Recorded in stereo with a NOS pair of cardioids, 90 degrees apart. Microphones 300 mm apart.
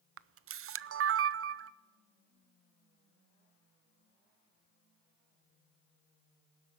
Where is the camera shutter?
50° right, 0.6 m.